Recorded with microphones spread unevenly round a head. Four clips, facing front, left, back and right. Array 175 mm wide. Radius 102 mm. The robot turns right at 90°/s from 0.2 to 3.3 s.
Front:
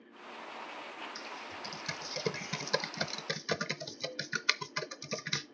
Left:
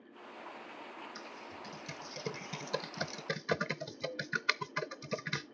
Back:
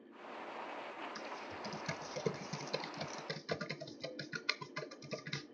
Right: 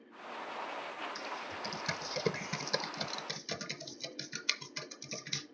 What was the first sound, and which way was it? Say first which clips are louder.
Typing on a keyboard: right 6 dB, front 1 dB; 165° right.